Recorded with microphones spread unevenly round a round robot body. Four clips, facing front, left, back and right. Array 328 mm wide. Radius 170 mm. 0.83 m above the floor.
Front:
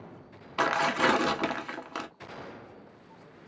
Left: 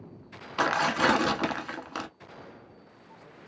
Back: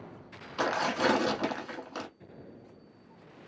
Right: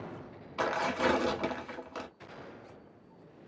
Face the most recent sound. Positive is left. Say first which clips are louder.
# left 5 dB, front 2 dB
turn(degrees=60)